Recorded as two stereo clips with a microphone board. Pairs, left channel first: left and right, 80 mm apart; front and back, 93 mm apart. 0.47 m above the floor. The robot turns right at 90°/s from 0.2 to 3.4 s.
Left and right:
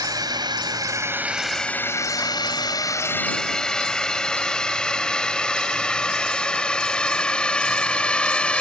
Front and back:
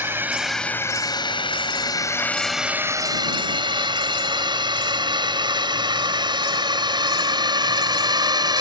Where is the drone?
115° right; by 8.6 s 160° left.